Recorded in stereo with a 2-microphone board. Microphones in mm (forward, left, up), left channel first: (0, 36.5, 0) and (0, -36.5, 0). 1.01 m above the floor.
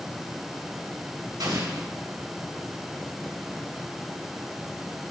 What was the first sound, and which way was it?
An explosion, 80° right.